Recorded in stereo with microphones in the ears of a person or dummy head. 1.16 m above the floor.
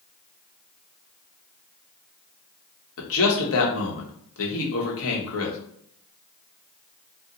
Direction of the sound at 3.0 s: 65° left (ahead or behind).